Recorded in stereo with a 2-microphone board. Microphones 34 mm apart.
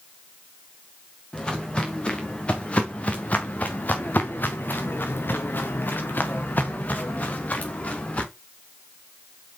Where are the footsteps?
25° left (ahead or behind), 3.5 m; by 8.2 s 45° left (ahead or behind), 3 m.